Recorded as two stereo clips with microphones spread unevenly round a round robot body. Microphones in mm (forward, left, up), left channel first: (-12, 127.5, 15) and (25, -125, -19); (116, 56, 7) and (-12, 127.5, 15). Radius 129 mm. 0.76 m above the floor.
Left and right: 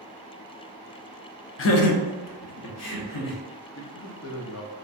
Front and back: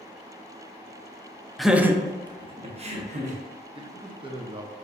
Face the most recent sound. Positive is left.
turn(degrees=105)